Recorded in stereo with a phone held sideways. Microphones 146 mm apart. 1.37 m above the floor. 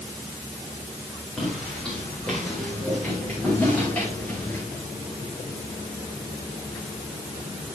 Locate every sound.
1.4 s footsteps: 5° left (ahead or behind), 9 m; by 4.6 s 10° left (ahead or behind), 12 m